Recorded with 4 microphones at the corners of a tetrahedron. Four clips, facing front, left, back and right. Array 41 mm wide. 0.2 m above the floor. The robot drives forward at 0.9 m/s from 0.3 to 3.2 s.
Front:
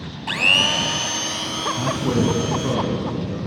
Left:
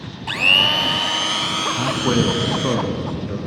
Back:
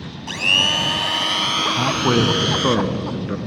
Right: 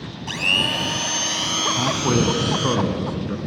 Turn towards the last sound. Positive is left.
turn(degrees=180)